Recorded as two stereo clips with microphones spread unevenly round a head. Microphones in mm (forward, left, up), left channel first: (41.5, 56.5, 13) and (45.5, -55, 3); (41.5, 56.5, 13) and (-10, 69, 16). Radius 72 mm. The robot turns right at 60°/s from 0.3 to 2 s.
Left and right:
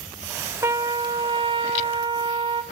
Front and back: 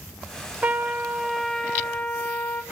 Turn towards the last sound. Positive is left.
turn(degrees=-70)